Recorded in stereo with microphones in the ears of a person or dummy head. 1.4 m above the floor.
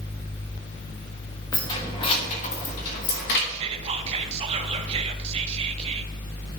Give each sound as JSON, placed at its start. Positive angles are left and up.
{"t": 1.5, "sound": "keys jangling", "side_deg": 15, "distance_m": 1.4}
{"t": 3.5, "sound": "whispering", "side_deg": -35, "distance_m": 0.6}